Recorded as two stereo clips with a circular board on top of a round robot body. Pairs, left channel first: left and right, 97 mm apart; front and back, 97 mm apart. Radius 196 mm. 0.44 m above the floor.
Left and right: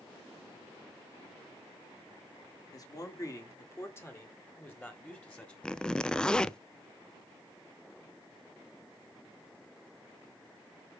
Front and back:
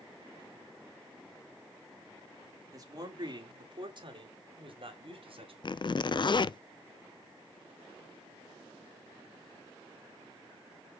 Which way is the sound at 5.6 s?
10° left.